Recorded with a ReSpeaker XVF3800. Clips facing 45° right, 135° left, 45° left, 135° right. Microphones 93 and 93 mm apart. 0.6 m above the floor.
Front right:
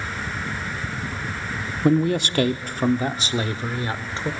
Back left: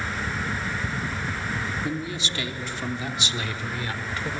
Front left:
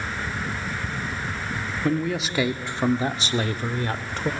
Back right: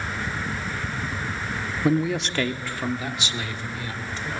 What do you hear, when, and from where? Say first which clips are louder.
1.8 s a man speaking: front right 11 dB, back right 2 dB; 60° right, 1.0 m; by 4.3 s 20° left, 1.7 m